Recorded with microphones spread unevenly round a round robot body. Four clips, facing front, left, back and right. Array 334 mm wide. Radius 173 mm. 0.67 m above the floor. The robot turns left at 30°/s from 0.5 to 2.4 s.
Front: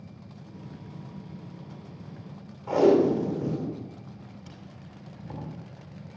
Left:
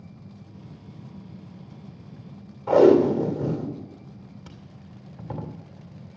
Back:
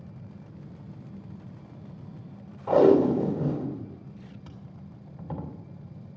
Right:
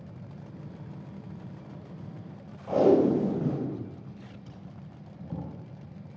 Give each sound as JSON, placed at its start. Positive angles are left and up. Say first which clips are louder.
{"t": 2.7, "sound": "tape being pulled", "louder": "left 6 dB, back 1 dB", "azimuth_deg": 100, "distance_m": 2.5}